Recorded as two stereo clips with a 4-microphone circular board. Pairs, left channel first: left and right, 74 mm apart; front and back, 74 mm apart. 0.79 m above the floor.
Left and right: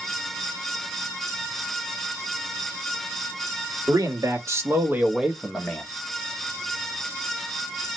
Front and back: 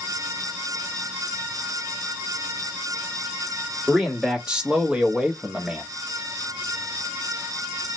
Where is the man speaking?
100° right, 1.7 m; by 5.8 s 130° left, 1.0 m.